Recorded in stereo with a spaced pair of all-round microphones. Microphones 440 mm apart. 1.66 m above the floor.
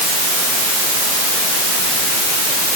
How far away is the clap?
I don't hear a clap.